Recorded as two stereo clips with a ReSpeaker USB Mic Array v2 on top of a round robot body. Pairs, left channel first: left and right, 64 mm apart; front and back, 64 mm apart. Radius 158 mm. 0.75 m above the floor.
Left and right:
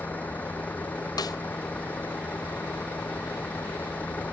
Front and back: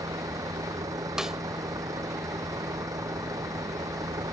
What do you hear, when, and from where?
0.0 s a vehicle: 155° left
1.2 s a snare drum: 95° left